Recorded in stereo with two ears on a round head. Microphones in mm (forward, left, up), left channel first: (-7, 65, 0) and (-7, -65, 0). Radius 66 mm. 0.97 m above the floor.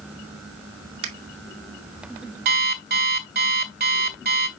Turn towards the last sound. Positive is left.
turn(degrees=-65)  # may be behind; listen again after turning